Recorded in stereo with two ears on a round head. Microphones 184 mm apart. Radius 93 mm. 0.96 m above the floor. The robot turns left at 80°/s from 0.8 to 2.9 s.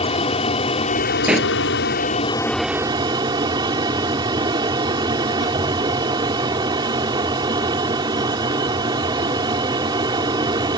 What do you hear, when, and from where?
0.0 s an aircraft: 145° left; by 10.8 s 20° right
1.3 s a pop: 5° right (ahead or behind); by 1.5 s 15° left (ahead or behind)